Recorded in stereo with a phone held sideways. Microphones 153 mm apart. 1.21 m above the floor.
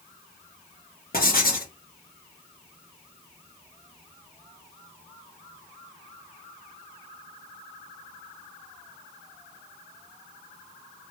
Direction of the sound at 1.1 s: 75° left (ahead or behind).